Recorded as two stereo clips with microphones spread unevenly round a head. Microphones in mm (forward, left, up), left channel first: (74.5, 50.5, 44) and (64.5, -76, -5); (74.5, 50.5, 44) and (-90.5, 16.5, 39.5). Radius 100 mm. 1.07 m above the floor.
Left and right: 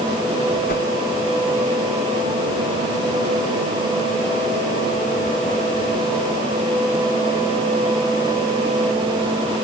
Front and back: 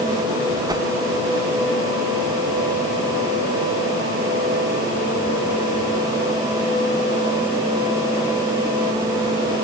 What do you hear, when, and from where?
0.7 s a whoosh: 125° left